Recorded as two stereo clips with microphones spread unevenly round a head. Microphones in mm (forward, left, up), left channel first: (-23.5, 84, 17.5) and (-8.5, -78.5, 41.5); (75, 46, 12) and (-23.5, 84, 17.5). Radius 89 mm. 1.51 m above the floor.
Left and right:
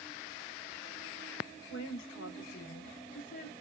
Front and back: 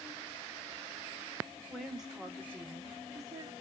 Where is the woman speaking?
65° left, 1.3 m; by 3.5 s 105° left, 1.4 m.